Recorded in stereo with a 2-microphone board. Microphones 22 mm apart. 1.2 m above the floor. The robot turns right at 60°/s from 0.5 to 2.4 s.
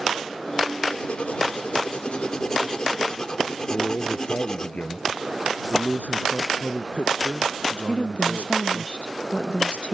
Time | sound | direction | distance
0.9 | writing | 50° left | ?
3.7 | a man speaking | 85° left | ?
5.7 | a man speaking | 90° left | ?
7.9 | a woman speaking | 75° left (ahead or behind) | ?